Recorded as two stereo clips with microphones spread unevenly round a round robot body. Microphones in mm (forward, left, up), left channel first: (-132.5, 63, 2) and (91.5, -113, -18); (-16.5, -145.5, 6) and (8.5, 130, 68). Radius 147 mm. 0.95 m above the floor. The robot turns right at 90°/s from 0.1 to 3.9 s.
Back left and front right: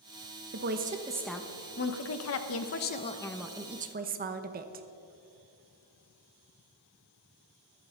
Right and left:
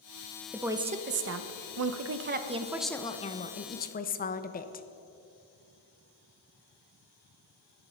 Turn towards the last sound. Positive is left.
turn(degrees=-75)